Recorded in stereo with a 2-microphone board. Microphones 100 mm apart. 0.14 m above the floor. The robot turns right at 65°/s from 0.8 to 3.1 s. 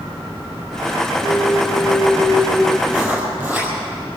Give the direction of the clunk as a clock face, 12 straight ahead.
9 o'clock.